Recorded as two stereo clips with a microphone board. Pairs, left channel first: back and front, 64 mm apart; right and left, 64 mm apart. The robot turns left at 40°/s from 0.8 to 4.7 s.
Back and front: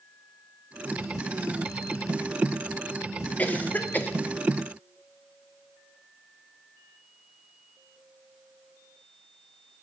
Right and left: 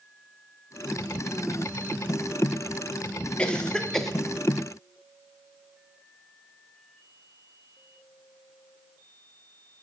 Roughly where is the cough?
Behind right.